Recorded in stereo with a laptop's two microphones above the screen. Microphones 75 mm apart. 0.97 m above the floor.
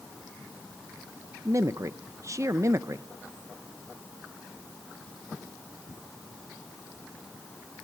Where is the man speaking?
45° right (ahead or behind), 0.6 m.